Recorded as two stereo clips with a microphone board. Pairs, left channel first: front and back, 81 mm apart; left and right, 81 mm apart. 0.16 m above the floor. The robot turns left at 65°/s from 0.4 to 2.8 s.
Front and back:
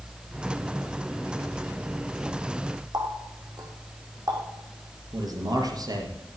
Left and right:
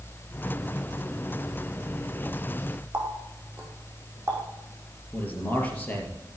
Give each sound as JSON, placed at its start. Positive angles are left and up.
{"t": 2.9, "sound": "a running tap", "azimuth_deg": -150, "distance_m": 4.5}
{"t": 5.1, "sound": "a man speaking", "azimuth_deg": 155, "distance_m": 4.0}